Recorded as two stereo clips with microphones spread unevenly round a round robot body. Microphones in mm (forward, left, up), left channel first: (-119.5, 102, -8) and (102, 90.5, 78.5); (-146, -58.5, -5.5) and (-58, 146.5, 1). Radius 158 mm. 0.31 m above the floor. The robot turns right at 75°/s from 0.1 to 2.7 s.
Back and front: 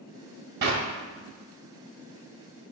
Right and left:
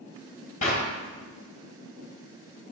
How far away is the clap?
About 1.5 m.